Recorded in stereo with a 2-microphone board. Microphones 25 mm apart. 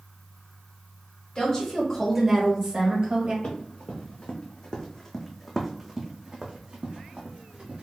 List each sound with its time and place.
1.4 s a woman speaking: 30° left (ahead or behind), 1.4 m; by 3.3 s 45° right (ahead or behind), 1.6 m
3.4 s running footsteps: 55° left (ahead or behind), 1.3 m; by 7.8 s 55° right (ahead or behind), 1.4 m